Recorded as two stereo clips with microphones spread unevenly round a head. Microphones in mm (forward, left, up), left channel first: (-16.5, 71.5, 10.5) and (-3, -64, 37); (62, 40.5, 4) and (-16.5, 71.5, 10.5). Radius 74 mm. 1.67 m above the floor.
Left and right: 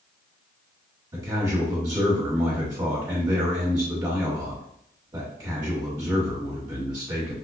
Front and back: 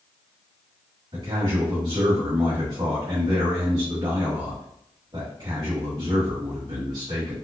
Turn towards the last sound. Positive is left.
turn(degrees=-145)